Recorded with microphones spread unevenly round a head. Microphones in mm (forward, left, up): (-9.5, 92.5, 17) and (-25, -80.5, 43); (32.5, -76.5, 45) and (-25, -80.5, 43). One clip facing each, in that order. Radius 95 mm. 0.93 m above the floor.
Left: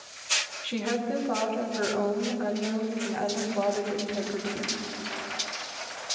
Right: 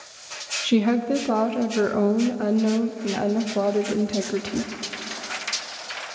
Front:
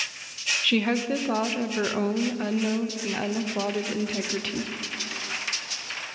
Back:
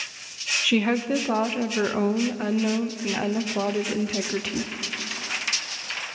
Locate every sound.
0.6 s a woman speaking: 100° right, 0.7 m